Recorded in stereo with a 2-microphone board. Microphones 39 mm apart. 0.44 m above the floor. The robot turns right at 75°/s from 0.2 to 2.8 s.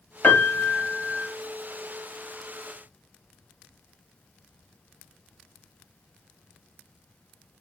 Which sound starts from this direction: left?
A piano, at 0.2 s.